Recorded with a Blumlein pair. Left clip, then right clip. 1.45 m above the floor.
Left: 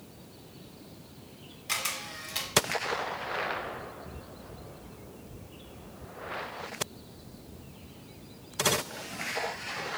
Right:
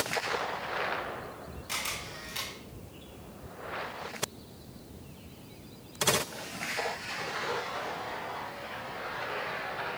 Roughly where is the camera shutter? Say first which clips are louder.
Left 3 dB; ahead left.